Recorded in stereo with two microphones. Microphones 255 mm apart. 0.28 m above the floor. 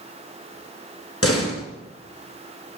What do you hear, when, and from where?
1.2 s a door slam: 65° left (ahead or behind), 3 m